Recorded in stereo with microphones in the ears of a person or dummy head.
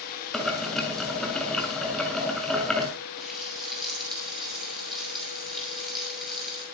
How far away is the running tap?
About 8.5 m.